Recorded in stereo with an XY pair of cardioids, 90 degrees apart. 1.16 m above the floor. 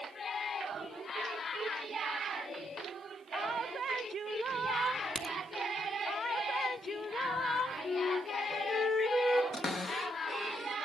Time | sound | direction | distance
5.2 | a crack | 20° left | 2 m
7.8 | a flute | 35° left | 2 m
9.5 | a cupboard door | 50° left | 1.7 m